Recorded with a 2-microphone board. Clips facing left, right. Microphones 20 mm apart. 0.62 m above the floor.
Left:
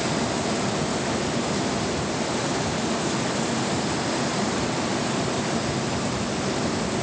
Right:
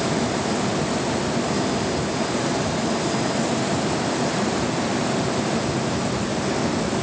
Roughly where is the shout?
I don't hear a shout.